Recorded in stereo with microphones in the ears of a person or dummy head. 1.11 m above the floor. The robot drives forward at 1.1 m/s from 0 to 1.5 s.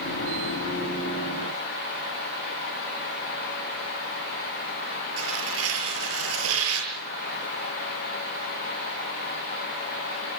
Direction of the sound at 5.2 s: 85° right.